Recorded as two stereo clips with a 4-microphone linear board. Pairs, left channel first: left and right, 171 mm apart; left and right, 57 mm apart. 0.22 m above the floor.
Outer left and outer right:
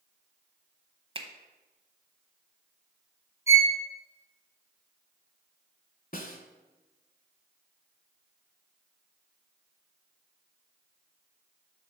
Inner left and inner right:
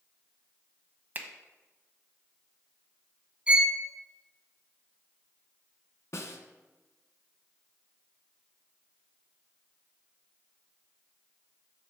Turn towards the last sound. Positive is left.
turn(degrees=55)  # may be behind; listen again after turning